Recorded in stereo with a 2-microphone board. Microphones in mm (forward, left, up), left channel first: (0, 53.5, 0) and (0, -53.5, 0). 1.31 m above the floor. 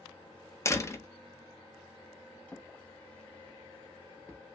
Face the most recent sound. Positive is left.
turn(degrees=15)  # may be behind; listen again after turning